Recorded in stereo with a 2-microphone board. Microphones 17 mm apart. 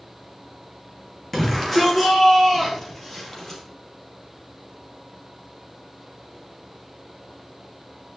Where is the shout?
10° left (ahead or behind), 4 m; by 3.6 s 20° left (ahead or behind), 5.5 m.